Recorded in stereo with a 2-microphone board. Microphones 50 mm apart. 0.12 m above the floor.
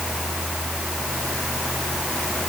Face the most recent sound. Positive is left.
No sound to turn to.